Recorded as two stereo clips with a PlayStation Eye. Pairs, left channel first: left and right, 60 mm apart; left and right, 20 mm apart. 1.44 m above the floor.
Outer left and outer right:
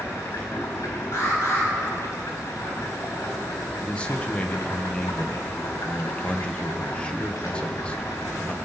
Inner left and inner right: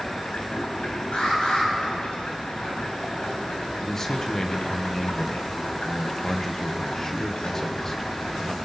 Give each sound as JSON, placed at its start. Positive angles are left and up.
{"t": 0.0, "sound": "running water", "side_deg": 65, "distance_m": 4.5}
{"t": 1.1, "sound": "an alarm", "side_deg": 50, "distance_m": 7.5}
{"t": 3.8, "sound": "a man speaking", "side_deg": 20, "distance_m": 1.1}